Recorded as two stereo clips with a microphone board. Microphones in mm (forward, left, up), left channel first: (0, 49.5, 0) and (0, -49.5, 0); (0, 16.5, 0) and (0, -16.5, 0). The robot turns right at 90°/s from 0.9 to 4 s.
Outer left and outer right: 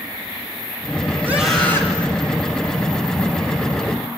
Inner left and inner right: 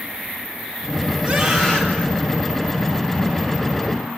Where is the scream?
25° right, 8.5 m; by 2.1 s 50° left, 8.5 m.